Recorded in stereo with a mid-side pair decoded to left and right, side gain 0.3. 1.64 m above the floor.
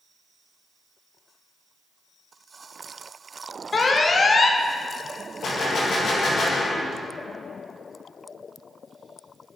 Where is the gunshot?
70° left, 2.0 m.